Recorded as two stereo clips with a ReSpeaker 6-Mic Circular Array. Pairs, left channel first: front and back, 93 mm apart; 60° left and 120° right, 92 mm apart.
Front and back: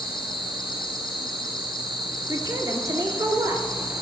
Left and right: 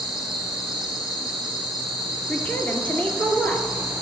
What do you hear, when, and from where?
0.0 s an insect: 15° left, 1.6 m
2.3 s a woman speaking: 135° left, 1.7 m